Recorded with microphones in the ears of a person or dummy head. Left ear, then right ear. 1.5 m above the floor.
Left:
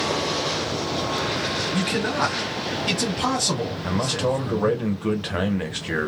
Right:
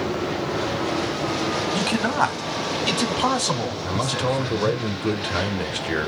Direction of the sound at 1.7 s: 40° right (ahead or behind).